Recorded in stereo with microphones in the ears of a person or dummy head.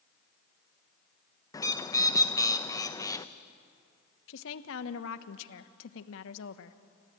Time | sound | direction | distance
1.5 | a bird | 20° left (ahead or behind) | 0.6 m
4.3 | a woman speaking | 75° left (ahead or behind) | 1.0 m